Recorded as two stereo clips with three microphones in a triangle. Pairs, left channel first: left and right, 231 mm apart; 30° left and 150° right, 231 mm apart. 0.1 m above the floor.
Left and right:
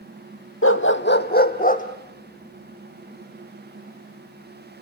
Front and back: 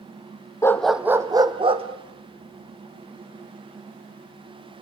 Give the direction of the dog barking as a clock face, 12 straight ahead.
8 o'clock.